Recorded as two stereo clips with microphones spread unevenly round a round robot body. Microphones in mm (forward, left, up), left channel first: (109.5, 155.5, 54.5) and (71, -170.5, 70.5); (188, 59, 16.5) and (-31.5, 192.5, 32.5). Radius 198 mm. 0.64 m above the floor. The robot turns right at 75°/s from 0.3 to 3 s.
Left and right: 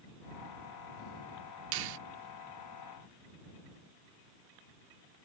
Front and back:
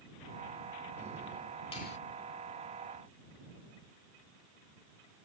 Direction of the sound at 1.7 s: 105° right.